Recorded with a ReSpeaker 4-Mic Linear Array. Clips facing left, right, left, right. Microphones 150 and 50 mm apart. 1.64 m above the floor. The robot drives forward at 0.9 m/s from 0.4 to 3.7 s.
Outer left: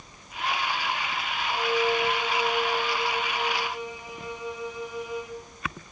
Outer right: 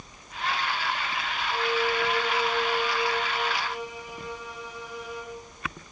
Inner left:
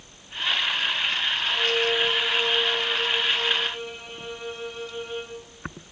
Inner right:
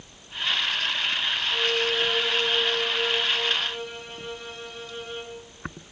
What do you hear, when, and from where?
1.5 s a violin: 25° left (ahead or behind), 4.5 m; by 5.4 s 15° left (ahead or behind), 6.5 m